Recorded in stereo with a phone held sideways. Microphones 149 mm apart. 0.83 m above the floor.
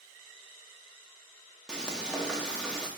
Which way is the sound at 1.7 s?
5° right (ahead or behind).